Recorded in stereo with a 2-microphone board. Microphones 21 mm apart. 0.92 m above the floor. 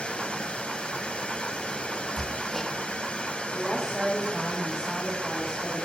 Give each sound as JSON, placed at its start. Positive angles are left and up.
{"t": 0.0, "sound": "running water", "side_deg": 60, "distance_m": 1.5}
{"t": 2.2, "sound": "hammering", "side_deg": 25, "distance_m": 1.2}
{"t": 3.5, "sound": "a woman speaking", "side_deg": -25, "distance_m": 3.5}